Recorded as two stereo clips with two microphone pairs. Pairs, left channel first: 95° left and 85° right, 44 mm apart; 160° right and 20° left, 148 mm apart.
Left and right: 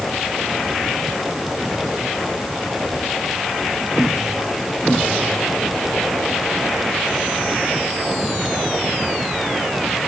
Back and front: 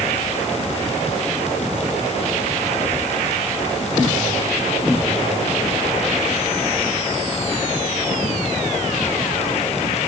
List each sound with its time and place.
Only background noise.